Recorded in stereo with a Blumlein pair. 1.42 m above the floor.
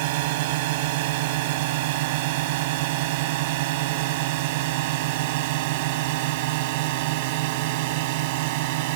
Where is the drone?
50° right.